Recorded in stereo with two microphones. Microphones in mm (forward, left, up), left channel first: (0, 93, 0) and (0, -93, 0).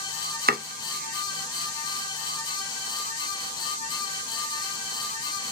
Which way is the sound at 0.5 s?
50° right (ahead or behind).